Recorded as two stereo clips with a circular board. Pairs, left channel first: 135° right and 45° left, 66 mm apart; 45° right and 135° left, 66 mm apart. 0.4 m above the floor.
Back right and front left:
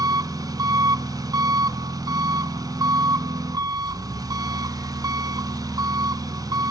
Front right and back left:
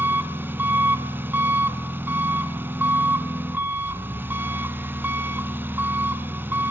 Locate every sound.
0.0 s an engine running: 75° left, 0.9 m